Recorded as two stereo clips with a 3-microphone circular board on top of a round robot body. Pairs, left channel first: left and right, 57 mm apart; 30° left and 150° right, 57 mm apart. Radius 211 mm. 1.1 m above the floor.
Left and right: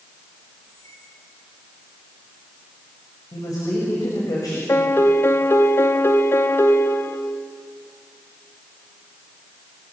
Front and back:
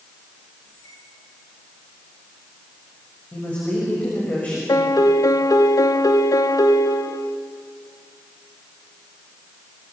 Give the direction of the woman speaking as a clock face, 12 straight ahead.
9 o'clock.